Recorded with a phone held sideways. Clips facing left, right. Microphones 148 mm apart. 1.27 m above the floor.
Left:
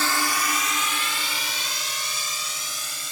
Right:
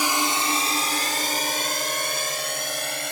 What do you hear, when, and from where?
0.0 s a drone: 15° right (ahead or behind); by 3.1 s 70° right (ahead or behind)